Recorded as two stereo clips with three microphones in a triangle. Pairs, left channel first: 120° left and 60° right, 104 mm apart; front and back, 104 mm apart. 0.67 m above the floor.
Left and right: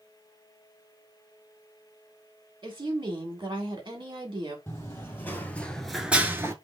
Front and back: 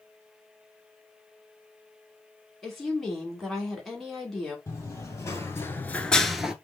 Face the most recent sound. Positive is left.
turn(degrees=-105)